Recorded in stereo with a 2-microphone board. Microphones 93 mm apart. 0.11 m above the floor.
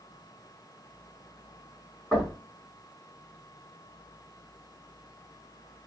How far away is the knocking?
About 2.5 m.